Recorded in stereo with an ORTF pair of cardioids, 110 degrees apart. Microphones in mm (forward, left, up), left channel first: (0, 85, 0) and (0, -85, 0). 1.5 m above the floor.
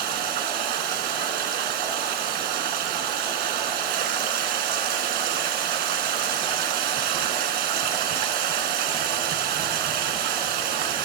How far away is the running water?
About 1.3 m.